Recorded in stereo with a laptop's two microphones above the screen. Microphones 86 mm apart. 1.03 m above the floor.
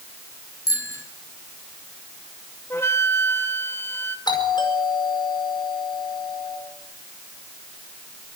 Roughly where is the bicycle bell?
Left.